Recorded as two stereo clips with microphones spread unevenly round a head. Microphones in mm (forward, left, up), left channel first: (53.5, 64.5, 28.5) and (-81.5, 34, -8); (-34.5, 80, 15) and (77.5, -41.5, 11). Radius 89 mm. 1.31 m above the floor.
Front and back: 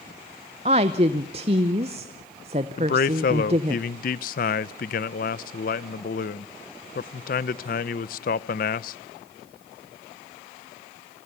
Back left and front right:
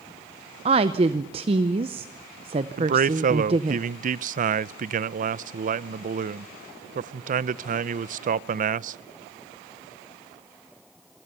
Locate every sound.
0.7 s a woman speaking: 110° right, 0.6 m
2.8 s a man speaking: 5° right, 0.6 m